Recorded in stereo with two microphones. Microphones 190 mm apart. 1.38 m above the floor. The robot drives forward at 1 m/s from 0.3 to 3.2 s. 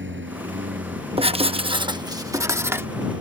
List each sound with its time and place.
0.0 s a lawn mower: 75° right (ahead or behind); by 3.2 s 80° right
1.2 s writing: 30° right (ahead or behind); by 2.9 s 10° right (ahead or behind)